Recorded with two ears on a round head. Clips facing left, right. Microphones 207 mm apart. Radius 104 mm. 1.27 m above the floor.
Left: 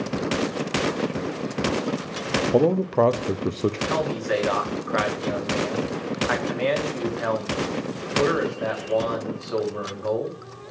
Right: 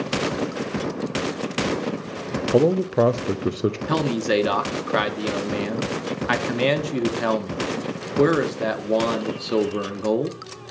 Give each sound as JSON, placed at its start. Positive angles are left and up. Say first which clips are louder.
{"t": 2.5, "sound": "a man speaking", "louder": "right 2 dB", "side_deg": -10, "distance_m": 0.5}
{"t": 3.9, "sound": "a man speaking", "louder": "right 3 dB", "side_deg": -45, "distance_m": 1.1}